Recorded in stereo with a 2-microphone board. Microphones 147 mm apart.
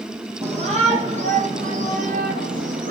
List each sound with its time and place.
0.4 s a shout: 45° right (ahead or behind), 4.5 m; by 2.9 s 70° right (ahead or behind), 4.5 m